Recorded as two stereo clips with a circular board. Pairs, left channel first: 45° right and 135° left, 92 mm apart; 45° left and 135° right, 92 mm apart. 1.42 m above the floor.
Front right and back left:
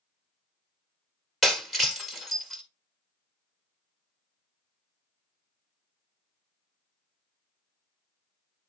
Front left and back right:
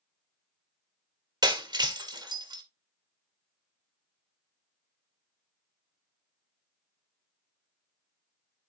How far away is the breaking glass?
About 1.4 m.